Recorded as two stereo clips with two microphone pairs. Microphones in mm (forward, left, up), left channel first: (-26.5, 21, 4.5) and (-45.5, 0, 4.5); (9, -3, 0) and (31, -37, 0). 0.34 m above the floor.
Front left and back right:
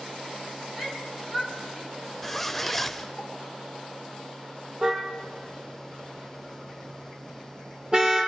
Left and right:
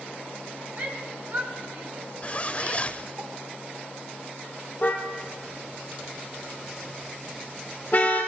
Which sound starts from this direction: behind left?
A zipper, at 2.2 s.